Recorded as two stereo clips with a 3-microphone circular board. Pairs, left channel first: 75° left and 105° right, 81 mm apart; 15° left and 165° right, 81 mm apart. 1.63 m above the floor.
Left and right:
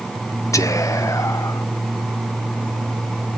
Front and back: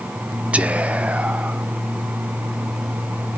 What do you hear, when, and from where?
0.5 s whispering: 120° left, 0.7 m